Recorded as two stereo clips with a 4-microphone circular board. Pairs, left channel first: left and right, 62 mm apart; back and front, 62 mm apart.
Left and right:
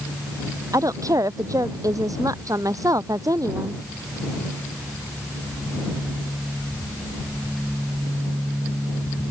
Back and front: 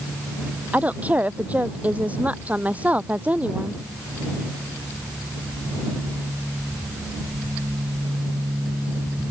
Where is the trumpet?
I don't hear a trumpet.